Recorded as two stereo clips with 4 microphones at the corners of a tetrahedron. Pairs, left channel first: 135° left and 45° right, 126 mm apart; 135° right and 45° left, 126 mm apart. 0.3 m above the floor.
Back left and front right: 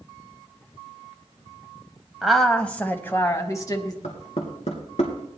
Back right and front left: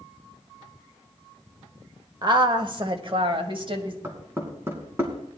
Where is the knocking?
115° left, 2.5 m.